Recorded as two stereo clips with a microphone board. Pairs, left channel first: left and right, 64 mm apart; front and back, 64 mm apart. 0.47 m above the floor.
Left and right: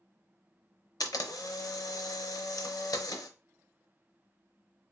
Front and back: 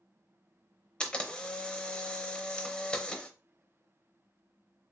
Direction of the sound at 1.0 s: 75° left.